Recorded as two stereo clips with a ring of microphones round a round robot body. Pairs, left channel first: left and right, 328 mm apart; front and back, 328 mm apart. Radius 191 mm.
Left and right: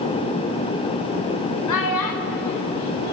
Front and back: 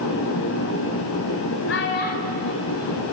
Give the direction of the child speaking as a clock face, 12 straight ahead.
10 o'clock.